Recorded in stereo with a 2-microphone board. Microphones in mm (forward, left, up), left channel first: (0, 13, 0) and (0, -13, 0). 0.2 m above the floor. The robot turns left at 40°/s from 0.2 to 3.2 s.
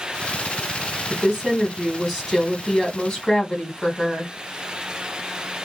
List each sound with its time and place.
1.1 s a woman speaking: 125° right, 1.2 m; by 4.3 s 150° left, 1.2 m